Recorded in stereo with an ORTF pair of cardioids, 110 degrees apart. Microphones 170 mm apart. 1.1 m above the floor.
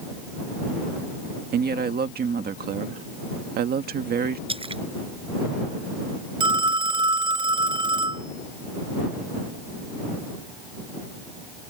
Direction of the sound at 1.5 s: 70° right.